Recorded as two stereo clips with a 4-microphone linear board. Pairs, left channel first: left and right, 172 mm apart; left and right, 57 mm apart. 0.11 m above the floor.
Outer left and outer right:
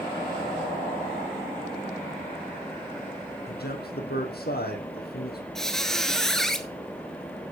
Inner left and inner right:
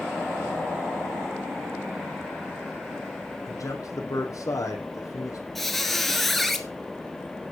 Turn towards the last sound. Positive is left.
turn(degrees=5)  # may be behind; listen again after turning